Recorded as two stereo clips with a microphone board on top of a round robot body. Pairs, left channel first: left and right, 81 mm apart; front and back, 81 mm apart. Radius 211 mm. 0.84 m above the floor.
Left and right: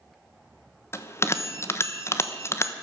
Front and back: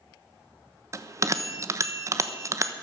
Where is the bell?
140° left, 1.3 m.